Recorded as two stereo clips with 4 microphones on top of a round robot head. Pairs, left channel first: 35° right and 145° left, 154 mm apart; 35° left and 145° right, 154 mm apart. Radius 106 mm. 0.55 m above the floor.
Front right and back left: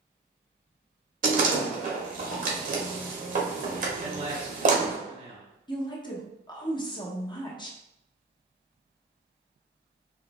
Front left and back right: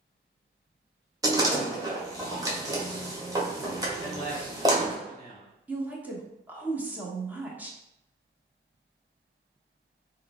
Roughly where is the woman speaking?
Right.